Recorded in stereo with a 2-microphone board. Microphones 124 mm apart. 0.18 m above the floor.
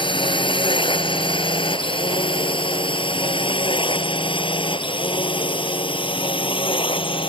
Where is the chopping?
I don't hear chopping.